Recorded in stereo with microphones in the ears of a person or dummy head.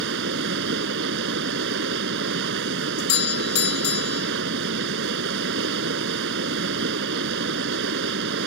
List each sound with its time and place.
0.0 s running water: 65° right (ahead or behind)
3.0 s a doorbell: 50° left (ahead or behind)